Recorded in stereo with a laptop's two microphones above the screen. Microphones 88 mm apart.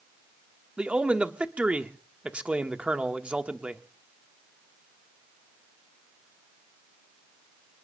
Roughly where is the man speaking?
Centre.